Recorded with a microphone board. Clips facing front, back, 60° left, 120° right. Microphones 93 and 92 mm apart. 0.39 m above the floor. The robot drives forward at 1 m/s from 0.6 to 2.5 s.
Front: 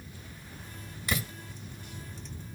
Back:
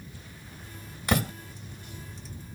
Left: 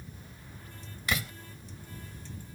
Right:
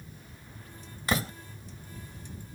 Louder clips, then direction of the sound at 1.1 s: Back 7 dB, right 4 dB; 170° right.